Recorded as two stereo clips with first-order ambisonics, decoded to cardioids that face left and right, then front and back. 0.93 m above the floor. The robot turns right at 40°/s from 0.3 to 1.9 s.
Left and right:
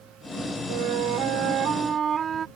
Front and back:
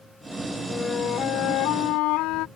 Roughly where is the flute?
Right.